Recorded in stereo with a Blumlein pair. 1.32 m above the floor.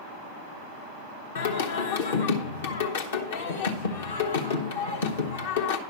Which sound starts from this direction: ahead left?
Singing, at 1.4 s.